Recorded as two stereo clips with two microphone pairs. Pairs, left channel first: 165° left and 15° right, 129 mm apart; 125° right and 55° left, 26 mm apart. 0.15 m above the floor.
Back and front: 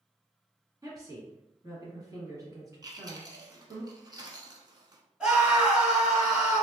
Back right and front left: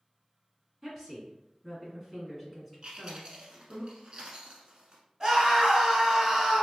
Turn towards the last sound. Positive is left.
turn(degrees=55)